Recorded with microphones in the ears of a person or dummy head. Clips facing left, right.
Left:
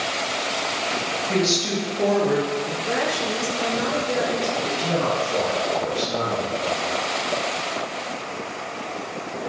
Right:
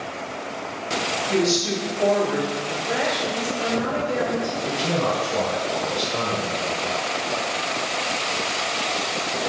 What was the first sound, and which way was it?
A woman speaking, 55° left (ahead or behind).